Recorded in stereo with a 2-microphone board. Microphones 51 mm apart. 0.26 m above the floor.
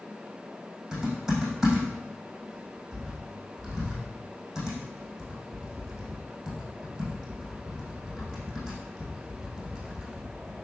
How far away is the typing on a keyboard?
About 6.5 m.